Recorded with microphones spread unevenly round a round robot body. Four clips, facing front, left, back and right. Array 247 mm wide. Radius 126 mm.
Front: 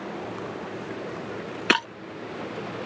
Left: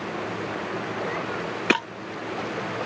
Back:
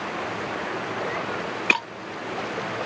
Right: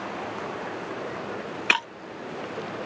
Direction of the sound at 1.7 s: 65° left.